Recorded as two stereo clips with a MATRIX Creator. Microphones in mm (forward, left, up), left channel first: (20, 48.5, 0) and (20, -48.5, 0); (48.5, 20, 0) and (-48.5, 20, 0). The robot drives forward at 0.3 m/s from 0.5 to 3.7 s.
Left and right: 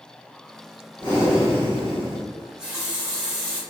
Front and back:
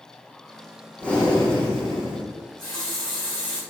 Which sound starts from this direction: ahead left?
Breathing, at 1.0 s.